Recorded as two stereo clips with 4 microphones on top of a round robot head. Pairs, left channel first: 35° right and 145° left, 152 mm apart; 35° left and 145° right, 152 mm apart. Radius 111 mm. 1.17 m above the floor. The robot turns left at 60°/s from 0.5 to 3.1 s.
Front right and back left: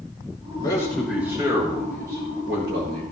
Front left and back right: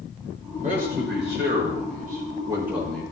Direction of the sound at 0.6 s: 100° right.